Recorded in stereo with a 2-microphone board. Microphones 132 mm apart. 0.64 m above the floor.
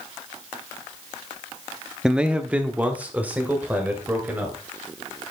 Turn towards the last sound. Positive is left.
turn(degrees=-15)  # may be behind; listen again after turning